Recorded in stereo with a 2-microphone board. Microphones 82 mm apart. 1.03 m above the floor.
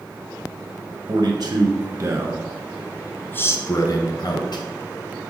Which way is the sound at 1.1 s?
60° right (ahead or behind).